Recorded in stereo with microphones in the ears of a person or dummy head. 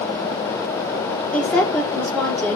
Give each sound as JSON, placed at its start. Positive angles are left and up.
{"t": 1.3, "sound": "a woman speaking", "side_deg": 10, "distance_m": 4.5}